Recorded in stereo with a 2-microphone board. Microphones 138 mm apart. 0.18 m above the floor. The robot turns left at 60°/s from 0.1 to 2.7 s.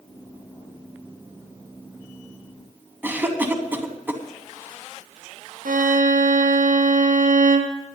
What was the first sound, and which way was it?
A cough, 15° right (ahead or behind).